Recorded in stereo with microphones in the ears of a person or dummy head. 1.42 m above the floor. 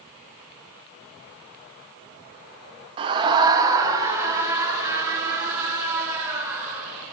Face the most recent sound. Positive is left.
turn(degrees=-15)  # may be behind; listen again after turning